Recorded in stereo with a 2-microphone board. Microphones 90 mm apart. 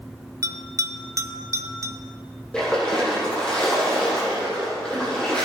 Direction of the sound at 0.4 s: 40° right (ahead or behind).